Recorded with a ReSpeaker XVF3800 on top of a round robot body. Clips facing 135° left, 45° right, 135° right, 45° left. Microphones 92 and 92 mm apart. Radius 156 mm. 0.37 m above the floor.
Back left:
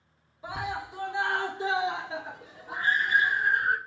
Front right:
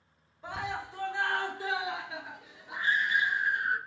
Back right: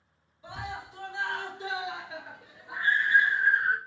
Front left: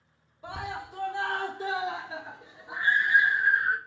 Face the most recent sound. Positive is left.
turn(degrees=130)